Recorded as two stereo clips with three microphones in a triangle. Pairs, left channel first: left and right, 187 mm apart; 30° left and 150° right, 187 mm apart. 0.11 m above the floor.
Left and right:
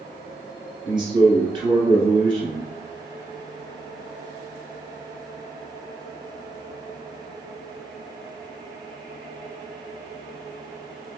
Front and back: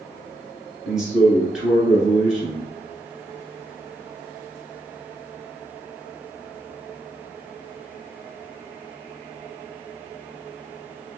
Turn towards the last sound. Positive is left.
turn(degrees=-65)